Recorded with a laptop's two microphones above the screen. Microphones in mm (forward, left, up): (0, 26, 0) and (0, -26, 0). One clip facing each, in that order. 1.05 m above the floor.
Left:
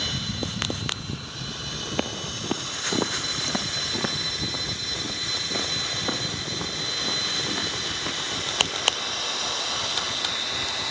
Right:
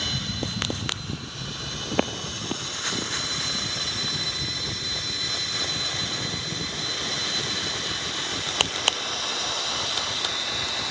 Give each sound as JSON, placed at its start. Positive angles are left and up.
{"t": 1.9, "sound": "footsteps", "side_deg": -25, "distance_m": 1.5}